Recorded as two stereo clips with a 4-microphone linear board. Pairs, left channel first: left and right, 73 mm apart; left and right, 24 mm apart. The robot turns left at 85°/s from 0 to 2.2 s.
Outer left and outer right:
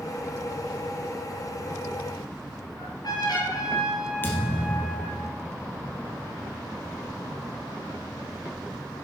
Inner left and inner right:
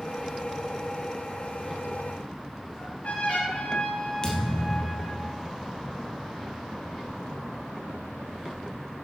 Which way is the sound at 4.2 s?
25° left (ahead or behind).